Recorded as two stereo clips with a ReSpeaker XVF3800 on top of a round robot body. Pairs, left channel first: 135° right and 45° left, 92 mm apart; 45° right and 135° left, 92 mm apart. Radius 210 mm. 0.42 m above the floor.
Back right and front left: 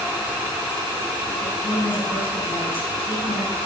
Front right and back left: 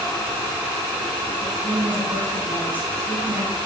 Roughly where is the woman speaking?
Behind right.